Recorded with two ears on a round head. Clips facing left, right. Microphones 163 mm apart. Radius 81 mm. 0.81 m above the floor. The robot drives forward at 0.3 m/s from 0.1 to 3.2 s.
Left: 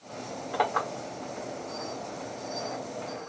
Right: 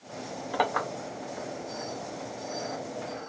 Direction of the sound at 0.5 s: 15° right (ahead or behind).